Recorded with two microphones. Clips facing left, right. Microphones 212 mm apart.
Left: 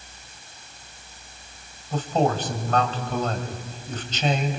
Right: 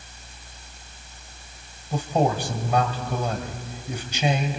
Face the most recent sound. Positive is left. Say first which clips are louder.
# even
turn(degrees=-10)  # may be behind; listen again after turning